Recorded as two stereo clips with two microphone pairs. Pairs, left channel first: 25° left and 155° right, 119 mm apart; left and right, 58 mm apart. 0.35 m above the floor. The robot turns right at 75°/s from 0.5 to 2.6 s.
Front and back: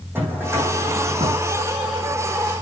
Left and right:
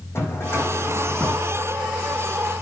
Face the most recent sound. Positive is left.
turn(degrees=-65)